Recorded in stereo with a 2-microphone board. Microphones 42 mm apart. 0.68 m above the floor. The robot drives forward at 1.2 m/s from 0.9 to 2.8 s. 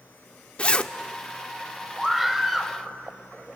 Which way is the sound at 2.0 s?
10° right (ahead or behind).